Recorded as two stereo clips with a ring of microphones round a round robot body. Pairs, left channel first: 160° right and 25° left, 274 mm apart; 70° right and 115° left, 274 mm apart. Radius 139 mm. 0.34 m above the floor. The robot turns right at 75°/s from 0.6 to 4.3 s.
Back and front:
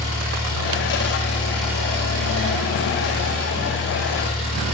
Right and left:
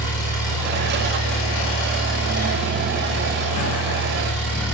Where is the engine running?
145° right, 10 m; by 4.7 s 135° left, 10 m.